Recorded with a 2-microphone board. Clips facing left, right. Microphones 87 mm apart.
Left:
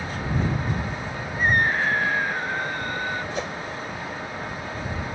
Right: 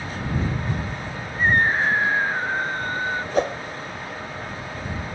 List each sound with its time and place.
1.4 s a scream: 25° right (ahead or behind)
3.3 s a whoosh: 45° right (ahead or behind)